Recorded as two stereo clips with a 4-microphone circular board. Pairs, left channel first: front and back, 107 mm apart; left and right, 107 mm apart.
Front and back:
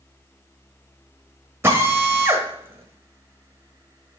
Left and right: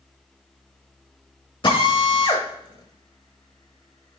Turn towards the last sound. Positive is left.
turn(degrees=115)